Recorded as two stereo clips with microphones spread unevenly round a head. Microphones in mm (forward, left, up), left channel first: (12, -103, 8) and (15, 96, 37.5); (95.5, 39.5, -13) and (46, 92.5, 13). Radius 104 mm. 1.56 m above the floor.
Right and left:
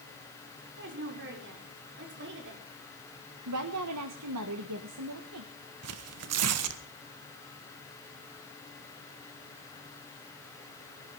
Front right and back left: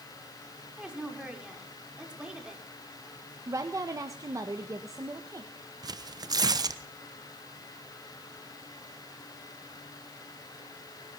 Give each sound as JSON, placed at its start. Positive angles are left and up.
{"t": 0.8, "sound": "a woman speaking", "azimuth_deg": 55, "distance_m": 5.5}
{"t": 3.5, "sound": "a woman speaking", "azimuth_deg": 95, "distance_m": 1.5}
{"t": 5.8, "sound": "tearing paper", "azimuth_deg": 105, "distance_m": 1.3}